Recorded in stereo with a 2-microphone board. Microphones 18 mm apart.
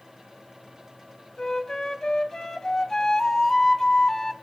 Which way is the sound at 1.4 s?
35° left (ahead or behind).